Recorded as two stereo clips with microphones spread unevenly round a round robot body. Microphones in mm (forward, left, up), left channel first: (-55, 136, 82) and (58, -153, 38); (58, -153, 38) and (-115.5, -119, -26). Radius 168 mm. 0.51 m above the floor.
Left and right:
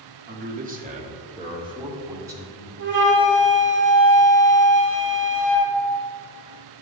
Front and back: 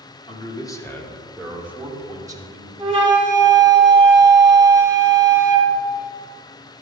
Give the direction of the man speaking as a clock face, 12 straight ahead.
3 o'clock.